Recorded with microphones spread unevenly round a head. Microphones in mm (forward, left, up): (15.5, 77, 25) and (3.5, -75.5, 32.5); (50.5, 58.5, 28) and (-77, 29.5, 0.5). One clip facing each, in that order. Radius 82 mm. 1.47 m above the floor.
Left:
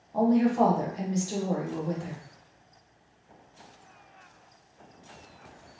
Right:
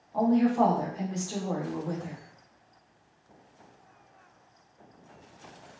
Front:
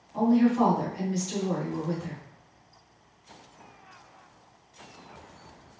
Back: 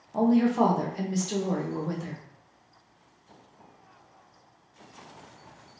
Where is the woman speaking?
155° left, 1.1 m.